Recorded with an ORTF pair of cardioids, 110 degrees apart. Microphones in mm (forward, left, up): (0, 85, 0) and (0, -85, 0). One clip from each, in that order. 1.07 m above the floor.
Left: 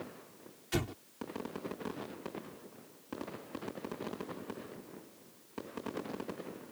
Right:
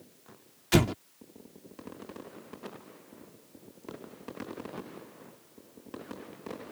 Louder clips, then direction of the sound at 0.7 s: Right 11 dB; 60° right.